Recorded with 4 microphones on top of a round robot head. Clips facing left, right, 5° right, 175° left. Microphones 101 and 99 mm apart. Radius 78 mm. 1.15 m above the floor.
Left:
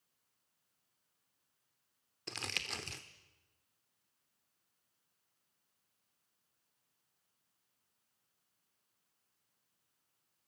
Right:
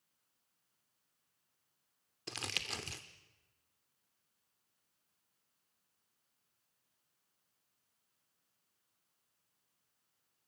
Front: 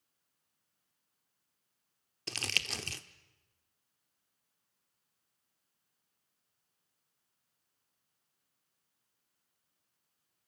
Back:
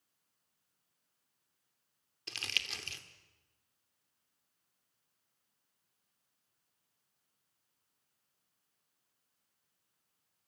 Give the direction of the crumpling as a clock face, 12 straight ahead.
12 o'clock.